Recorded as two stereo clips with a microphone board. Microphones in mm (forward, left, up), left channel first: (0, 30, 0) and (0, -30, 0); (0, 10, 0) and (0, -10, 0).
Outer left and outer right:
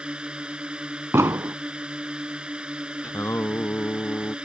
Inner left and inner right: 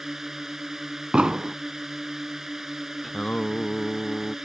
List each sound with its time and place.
0.0 s a drone: 15° right (ahead or behind)
1.1 s an explosion: 55° right (ahead or behind)
3.0 s singing: 45° left (ahead or behind)